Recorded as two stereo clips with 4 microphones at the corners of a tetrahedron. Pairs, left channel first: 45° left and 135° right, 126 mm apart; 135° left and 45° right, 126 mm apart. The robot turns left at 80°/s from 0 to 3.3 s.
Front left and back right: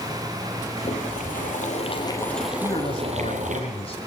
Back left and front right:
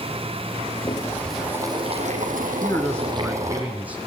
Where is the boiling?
90° left, 4 m; by 3.6 s 110° right, 4 m.